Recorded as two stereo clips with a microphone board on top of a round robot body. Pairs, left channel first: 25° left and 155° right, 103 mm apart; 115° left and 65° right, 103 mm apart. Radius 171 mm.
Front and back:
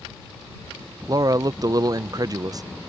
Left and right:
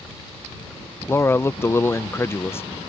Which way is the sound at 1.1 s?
170° left.